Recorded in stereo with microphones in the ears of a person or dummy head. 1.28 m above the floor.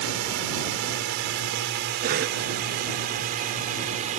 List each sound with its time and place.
0.0 s a drone: 70° right (ahead or behind); by 4.2 s 45° right (ahead or behind)
2.0 s a cough: 45° right (ahead or behind)